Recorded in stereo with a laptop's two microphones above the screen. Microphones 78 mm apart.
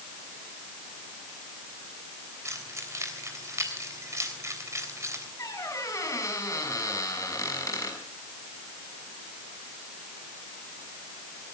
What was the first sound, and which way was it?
Keys jangling, 40° right (ahead or behind).